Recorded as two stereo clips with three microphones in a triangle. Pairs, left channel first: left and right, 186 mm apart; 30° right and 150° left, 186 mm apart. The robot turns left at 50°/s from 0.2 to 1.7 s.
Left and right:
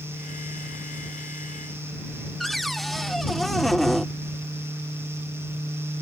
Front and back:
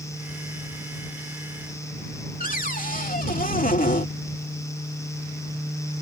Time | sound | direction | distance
2.4 | a cupboard door | straight ahead | ?